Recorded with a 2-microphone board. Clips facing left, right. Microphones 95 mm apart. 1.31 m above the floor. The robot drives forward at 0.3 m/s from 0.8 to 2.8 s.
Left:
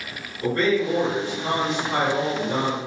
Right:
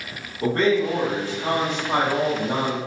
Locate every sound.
0.4 s a man speaking: 55° right (ahead or behind), 1.6 m; by 2.8 s 75° right (ahead or behind), 1.3 m